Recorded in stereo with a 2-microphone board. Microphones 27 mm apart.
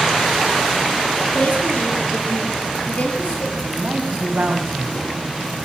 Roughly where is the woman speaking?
Left.